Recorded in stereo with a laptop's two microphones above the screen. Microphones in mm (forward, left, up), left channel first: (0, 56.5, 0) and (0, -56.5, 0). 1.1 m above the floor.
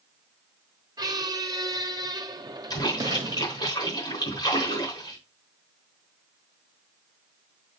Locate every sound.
1.0 s a squeak: 35° right (ahead or behind), 0.7 m
2.7 s a splash: 35° left (ahead or behind), 3.5 m